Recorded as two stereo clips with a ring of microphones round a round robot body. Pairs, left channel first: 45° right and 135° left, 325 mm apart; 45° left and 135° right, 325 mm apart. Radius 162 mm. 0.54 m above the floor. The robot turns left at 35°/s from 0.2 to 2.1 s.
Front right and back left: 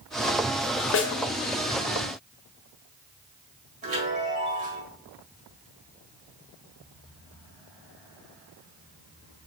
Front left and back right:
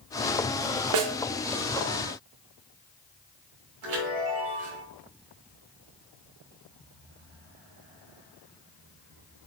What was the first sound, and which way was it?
A snare drum, 100° right.